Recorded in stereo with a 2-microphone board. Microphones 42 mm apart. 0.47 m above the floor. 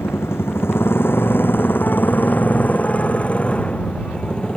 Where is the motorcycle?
80° left; by 4.6 s 20° left (ahead or behind).